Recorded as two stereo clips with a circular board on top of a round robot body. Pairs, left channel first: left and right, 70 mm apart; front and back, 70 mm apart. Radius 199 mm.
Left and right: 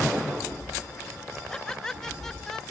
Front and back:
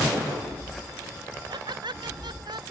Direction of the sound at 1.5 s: 170° left.